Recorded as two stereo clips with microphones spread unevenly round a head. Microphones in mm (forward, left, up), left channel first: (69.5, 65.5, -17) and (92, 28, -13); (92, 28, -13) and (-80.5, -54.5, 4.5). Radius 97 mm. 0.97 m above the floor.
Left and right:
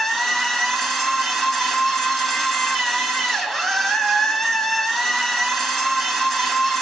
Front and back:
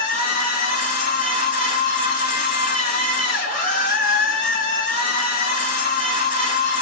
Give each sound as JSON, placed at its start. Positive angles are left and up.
{"t": 0.0, "sound": "a machine running", "azimuth_deg": 40, "distance_m": 1.0}